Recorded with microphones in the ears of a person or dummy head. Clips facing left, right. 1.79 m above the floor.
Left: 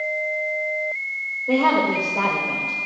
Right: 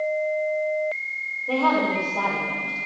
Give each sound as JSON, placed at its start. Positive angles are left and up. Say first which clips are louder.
{"t": 1.5, "sound": "a woman speaking", "louder": "left 3 dB", "side_deg": 25, "distance_m": 1.7}